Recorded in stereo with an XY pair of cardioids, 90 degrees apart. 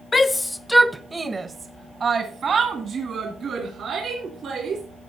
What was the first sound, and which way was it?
A shout, 30° left.